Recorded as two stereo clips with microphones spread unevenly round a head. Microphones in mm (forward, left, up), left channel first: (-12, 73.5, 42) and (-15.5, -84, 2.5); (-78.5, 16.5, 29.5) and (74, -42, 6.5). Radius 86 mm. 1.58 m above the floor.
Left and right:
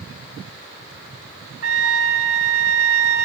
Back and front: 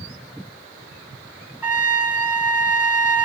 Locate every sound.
1.6 s a trumpet: 105° right, 1.1 m